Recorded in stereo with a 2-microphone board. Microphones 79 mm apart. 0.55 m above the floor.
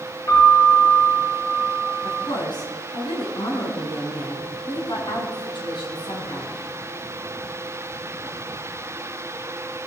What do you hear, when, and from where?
0.3 s a piano: 50° left (ahead or behind), 3.5 m
2.0 s a woman speaking: 75° left (ahead or behind), 4 m